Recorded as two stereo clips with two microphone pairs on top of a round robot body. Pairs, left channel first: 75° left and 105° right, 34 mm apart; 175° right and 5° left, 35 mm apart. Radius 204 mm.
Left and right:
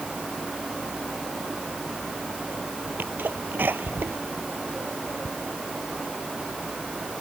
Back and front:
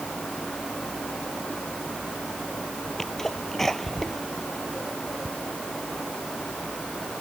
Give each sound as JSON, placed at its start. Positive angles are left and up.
{"t": 3.0, "sound": "a sneeze", "azimuth_deg": -95}